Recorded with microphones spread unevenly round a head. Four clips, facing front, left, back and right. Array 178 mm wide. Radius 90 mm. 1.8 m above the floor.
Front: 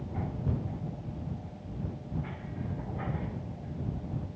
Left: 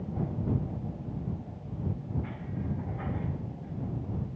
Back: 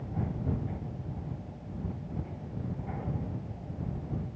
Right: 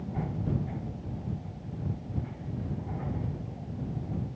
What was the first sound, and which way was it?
Only background noise.